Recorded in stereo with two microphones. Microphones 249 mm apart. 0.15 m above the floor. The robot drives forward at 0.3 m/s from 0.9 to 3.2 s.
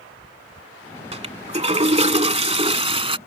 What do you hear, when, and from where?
1.1 s a toilet flushing: 25° right (ahead or behind)